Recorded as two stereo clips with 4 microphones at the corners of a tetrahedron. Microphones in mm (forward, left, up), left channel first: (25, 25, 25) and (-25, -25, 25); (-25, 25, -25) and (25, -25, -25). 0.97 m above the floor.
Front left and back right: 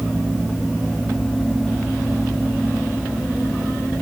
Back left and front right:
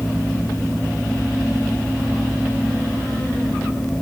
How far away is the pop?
I don't hear a pop.